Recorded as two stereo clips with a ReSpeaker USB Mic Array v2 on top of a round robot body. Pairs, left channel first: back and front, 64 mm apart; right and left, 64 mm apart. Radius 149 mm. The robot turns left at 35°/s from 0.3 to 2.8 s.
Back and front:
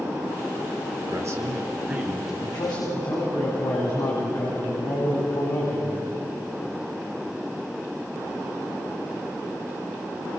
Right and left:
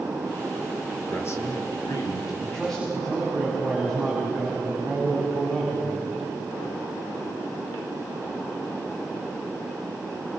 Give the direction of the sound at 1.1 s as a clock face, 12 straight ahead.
1 o'clock.